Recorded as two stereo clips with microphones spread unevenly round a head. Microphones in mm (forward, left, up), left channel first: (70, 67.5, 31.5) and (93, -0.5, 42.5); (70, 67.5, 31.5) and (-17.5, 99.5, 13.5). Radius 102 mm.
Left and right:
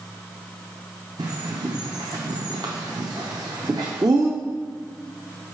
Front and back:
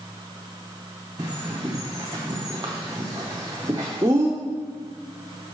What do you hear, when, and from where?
1.2 s a bird: 130° right, 0.5 m